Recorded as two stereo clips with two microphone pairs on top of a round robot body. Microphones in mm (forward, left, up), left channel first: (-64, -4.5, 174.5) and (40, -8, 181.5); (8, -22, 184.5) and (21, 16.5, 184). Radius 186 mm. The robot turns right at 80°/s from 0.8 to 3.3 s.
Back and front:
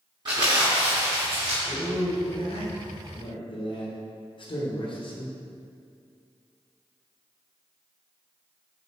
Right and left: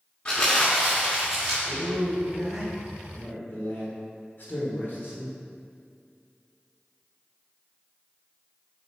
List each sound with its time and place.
0.2 s crumpling: 45° right, 1.0 m; by 1.6 s 15° left, 1.0 m
1.6 s a man speaking: 85° left, 1.6 m; by 5.3 s 145° right, 1.6 m